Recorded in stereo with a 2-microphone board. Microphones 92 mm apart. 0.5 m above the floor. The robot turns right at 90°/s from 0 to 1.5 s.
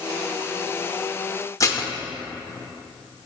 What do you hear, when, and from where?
1.6 s dishes clattering: 35° left (ahead or behind), 0.8 m